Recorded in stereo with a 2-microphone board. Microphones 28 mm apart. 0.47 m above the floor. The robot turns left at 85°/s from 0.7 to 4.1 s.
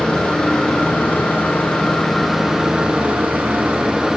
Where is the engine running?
135° left, 8.5 m; by 4.2 s 155° right, 8.5 m.